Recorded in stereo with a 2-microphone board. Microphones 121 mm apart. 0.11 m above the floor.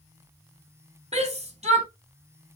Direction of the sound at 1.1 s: 55° right (ahead or behind).